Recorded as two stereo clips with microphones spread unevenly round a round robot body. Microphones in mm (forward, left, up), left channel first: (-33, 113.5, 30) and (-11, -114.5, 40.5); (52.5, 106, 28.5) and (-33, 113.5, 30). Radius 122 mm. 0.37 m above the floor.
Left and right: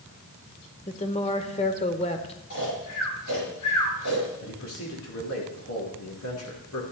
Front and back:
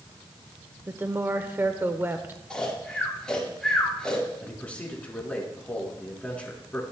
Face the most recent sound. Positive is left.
turn(degrees=70)